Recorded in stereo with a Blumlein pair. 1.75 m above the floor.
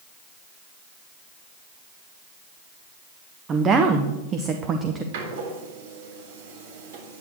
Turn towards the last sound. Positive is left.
turn(degrees=-55)